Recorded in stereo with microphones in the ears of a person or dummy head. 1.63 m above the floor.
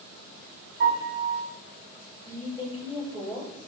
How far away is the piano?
About 4.5 m.